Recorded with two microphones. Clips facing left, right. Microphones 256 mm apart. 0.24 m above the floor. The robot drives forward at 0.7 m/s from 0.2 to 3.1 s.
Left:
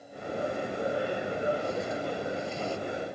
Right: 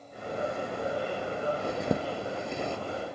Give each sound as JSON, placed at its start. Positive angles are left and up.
{"t": 1.6, "sound": "a zipper", "side_deg": -70}